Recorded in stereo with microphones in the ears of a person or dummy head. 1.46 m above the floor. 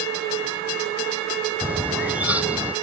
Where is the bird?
10° right (ahead or behind).